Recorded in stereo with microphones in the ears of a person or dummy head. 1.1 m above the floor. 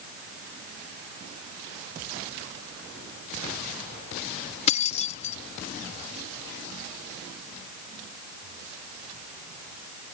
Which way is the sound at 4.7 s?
35° left (ahead or behind).